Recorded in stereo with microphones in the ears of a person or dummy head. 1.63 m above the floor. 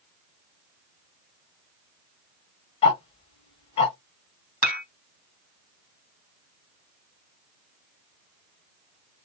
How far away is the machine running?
No machine running in this recording.